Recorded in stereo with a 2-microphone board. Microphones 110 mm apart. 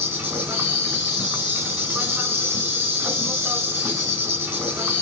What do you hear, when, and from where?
0.0 s an insect: 15° right (ahead or behind), 4 m